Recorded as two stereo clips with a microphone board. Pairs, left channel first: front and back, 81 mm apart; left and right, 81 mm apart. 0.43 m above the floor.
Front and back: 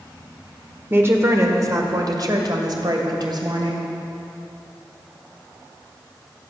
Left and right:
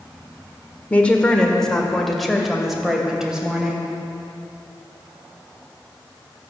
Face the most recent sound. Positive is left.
turn(degrees=-170)